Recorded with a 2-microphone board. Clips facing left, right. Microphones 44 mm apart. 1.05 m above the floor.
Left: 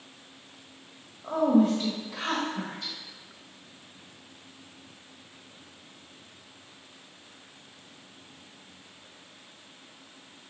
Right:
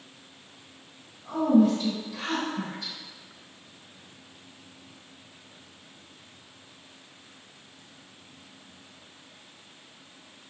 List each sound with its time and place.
1.2 s a woman speaking: 70° left (ahead or behind), 1.2 m